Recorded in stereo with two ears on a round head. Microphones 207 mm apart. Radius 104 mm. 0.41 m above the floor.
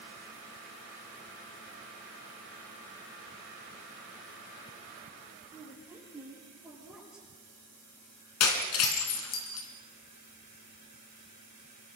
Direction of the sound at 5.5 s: 10° right (ahead or behind).